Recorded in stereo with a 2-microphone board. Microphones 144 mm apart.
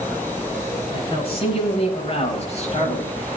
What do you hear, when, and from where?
0.9 s a man speaking: 40° left (ahead or behind), 7.5 m; by 3.3 s 50° left (ahead or behind), 7 m